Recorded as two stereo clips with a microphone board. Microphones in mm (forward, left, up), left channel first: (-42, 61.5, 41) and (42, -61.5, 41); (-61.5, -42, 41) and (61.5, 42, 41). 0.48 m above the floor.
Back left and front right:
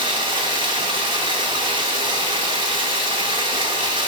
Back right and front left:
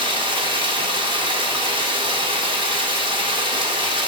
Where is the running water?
10° right, 1.2 m.